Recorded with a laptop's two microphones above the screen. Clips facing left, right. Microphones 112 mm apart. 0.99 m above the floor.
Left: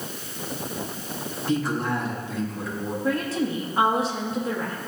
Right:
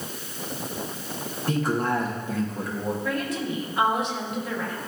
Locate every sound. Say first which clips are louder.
1.5 s a man speaking: right 1 dB; 50° right (ahead or behind), 1.2 m
3.0 s a woman speaking: left 3 dB; 35° left (ahead or behind), 1.1 m